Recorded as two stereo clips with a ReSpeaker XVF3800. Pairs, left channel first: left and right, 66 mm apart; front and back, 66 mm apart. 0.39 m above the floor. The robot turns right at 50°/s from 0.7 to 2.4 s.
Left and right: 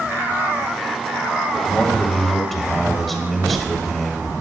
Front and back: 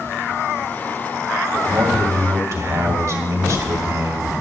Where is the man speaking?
140° left, 2 m; by 4.3 s 175° left, 2 m.